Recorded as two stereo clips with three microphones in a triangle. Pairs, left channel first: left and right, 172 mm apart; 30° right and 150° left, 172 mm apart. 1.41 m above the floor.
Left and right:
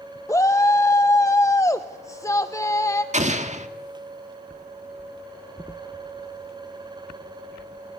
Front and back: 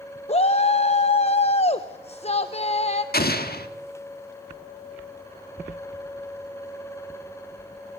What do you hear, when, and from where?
0.3 s a shout: 15° left, 0.7 m
3.1 s an explosion: 45° right, 1.7 m